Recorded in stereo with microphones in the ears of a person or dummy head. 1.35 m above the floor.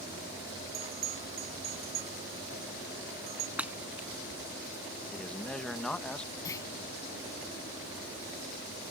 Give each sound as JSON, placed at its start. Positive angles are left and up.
{"t": 0.7, "sound": "a bell", "side_deg": -30}
{"t": 3.6, "sound": "breaking glass", "side_deg": -10}
{"t": 5.1, "sound": "a man speaking", "side_deg": 5}
{"t": 6.5, "sound": "a clunk", "side_deg": 20}